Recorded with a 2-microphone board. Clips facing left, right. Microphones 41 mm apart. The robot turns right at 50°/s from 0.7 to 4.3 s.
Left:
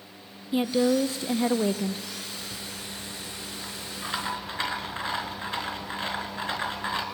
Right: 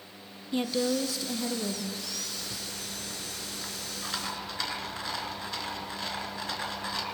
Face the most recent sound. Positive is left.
turn(degrees=30)